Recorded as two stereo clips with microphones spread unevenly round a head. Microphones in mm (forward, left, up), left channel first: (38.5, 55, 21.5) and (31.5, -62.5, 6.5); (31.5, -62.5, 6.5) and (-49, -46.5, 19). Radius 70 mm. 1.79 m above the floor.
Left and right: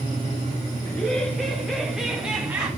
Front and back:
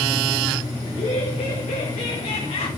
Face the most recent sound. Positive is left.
turn(degrees=-20)